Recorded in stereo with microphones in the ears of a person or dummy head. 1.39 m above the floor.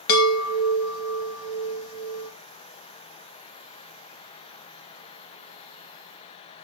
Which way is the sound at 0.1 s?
70° left (ahead or behind).